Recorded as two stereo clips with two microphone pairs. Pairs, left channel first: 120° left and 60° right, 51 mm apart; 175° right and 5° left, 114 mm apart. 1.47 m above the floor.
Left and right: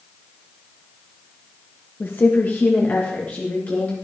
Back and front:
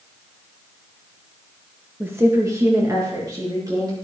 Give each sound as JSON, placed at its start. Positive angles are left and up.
{"t": 2.0, "sound": "a woman speaking", "azimuth_deg": 75, "distance_m": 1.1}